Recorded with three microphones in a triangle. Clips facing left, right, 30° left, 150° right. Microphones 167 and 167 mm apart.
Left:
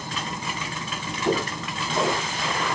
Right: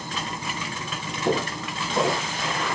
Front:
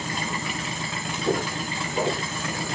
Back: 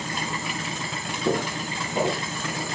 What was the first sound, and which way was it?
Footsteps, 145° right.